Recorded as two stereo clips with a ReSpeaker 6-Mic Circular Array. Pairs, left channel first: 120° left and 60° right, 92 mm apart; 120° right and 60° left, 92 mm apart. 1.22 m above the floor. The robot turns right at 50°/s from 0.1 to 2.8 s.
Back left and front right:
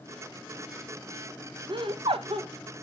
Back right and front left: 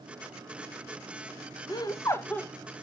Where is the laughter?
85° right, 0.6 m; by 2.5 s 45° right, 0.6 m.